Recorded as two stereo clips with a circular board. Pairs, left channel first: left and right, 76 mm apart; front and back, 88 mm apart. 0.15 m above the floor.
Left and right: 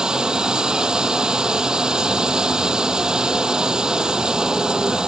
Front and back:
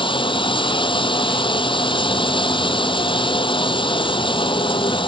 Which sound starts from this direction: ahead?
Running water, at 0.0 s.